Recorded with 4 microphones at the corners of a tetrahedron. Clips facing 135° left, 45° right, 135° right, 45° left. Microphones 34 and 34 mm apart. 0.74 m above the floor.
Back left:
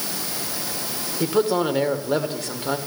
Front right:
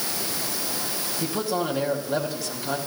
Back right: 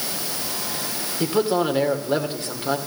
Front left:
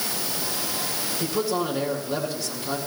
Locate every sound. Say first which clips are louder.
1.2 s a man speaking: back left 7 dB, back right 6 dB; 175° left, 2 m